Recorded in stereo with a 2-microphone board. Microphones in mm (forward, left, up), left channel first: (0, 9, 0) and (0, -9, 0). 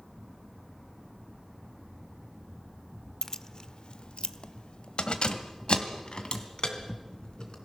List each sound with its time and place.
3.2 s keys jangling: 25° left (ahead or behind), 0.7 m; by 7.5 s 55° left (ahead or behind), 3.5 m